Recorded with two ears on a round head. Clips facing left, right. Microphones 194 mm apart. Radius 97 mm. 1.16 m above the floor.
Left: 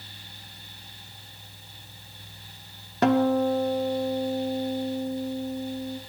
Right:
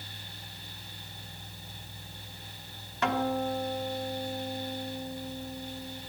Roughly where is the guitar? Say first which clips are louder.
Left 9 dB; left.